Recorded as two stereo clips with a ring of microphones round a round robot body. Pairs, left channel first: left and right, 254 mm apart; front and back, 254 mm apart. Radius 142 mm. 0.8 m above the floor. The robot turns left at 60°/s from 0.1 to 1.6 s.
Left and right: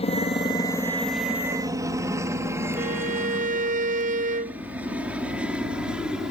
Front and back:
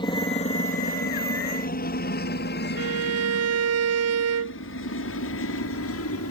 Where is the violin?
155° right.